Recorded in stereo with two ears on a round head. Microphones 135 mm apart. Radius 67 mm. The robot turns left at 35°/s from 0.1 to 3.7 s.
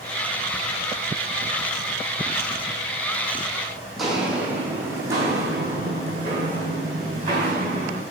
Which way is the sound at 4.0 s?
Centre (ahead or behind).